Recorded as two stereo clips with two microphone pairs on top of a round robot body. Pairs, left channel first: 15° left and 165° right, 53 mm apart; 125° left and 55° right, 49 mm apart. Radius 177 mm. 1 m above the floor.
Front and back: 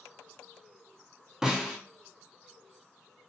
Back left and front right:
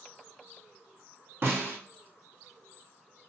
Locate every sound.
1.4 s a snare drum: 85° right, 0.8 m